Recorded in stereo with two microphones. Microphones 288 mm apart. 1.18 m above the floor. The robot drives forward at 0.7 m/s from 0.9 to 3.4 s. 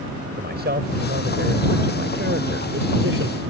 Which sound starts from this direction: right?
A man speaking, at 0.4 s.